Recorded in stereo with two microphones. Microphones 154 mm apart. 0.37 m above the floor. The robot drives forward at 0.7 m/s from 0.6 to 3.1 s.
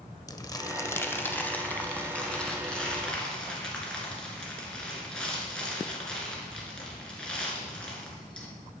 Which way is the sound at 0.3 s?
25° left (ahead or behind).